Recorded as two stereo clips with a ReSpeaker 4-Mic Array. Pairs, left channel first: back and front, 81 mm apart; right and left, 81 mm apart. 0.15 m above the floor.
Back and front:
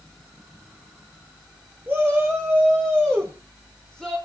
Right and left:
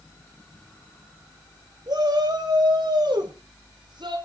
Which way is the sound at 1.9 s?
65° left.